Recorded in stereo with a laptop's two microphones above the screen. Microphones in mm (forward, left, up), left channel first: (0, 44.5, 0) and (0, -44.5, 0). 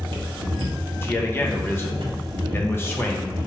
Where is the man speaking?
25° left (ahead or behind), 0.6 m.